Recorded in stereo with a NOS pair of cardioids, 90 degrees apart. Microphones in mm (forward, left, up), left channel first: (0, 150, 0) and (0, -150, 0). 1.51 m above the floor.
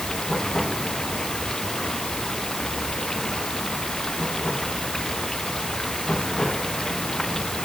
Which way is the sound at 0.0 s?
Straight ahead.